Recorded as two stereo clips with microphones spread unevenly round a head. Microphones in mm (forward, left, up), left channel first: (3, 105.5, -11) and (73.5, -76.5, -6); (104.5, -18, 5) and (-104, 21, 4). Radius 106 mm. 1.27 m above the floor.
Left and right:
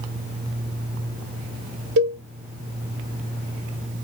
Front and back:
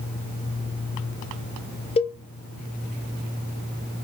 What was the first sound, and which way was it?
A cowbell, 75° right.